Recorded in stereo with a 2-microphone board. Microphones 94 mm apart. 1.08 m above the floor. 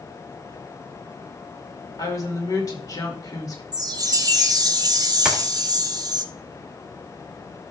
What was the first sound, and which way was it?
A woman speaking, 40° left (ahead or behind).